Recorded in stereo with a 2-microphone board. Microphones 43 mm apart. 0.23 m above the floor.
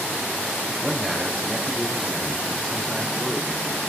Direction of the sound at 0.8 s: Centre (ahead or behind).